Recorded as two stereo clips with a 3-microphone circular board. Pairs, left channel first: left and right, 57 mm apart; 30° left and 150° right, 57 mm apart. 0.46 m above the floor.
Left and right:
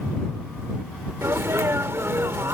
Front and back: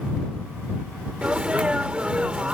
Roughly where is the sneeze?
Right.